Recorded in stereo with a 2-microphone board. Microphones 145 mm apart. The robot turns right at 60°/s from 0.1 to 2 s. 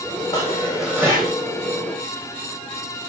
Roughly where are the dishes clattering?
Behind left.